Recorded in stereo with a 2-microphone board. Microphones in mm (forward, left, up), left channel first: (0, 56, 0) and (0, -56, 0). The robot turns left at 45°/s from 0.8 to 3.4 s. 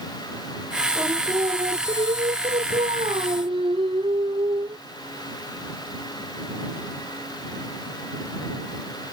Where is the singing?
20° right; by 4.8 s 130° right.